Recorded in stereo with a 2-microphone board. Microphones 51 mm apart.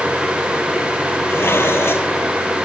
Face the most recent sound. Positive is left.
turn(degrees=50)  # may be behind; listen again after turning